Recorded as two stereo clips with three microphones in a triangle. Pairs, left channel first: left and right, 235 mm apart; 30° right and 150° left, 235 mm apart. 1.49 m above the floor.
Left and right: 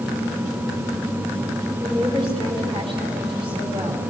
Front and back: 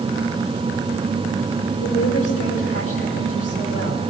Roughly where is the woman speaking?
Ahead.